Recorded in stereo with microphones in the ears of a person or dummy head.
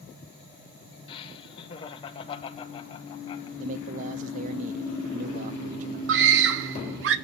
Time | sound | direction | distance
1.1 | laughter | 35° left (ahead or behind) | 2.0 m
3.6 | a man speaking | 40° right (ahead or behind) | 0.6 m
6.1 | a scream | 55° right (ahead or behind) | 0.8 m